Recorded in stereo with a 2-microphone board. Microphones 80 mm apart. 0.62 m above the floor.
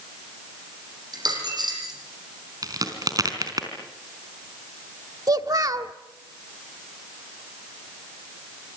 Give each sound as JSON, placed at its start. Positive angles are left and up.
{"t": 1.1, "sound": "a dropped coin", "side_deg": -55, "distance_m": 9.5}
{"t": 2.6, "sound": "a crack", "side_deg": -50, "distance_m": 4.0}
{"t": 5.3, "sound": "a child speaking", "side_deg": -50, "distance_m": 0.9}